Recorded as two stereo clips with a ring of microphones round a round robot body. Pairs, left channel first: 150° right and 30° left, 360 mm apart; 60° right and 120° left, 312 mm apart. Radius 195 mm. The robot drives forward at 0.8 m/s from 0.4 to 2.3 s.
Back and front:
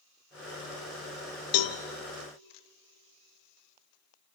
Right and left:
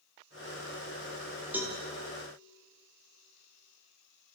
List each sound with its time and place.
1.5 s a cowbell: 155° right, 0.8 m; by 1.8 s 160° right, 1.0 m